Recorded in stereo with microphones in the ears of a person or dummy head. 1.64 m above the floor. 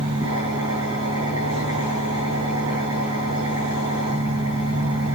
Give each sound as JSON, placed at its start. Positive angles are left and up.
{"t": 0.0, "sound": "an engine running", "side_deg": -25, "distance_m": 6.5}